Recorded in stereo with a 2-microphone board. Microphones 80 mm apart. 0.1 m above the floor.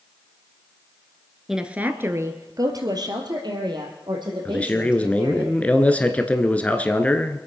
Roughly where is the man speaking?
Centre.